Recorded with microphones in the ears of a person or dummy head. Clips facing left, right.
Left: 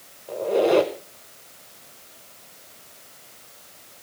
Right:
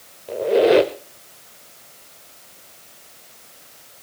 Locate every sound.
0.3 s a squeak: 20° right (ahead or behind), 0.9 m